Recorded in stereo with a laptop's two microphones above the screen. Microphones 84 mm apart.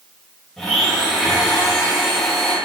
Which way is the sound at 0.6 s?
Centre (ahead or behind).